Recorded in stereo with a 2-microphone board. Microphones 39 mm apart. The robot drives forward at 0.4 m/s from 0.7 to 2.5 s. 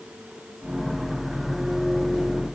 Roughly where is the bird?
No bird in this recording.